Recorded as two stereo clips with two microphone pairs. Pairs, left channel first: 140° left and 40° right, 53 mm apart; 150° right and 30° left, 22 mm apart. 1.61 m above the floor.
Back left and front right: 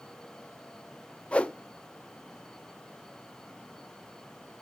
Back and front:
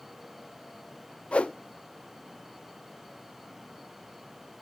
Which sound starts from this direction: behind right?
A whoosh, at 1.3 s.